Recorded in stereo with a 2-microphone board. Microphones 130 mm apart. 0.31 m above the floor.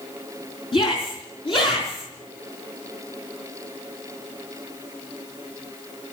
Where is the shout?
40° left (ahead or behind), 3 m.